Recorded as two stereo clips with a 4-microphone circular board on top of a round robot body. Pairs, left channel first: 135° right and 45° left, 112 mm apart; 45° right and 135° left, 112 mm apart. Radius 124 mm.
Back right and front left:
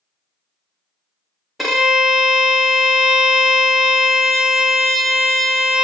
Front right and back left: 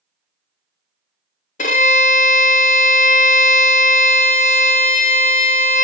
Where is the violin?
45° right, 0.6 m.